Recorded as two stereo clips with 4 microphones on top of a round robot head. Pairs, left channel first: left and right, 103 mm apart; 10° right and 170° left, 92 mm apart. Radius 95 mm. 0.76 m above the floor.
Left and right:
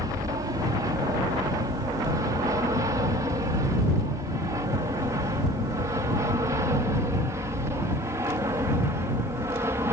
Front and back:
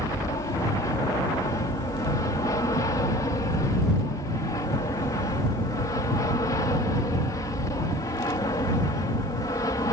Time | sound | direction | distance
0.0 | an aircraft | 50° right | ?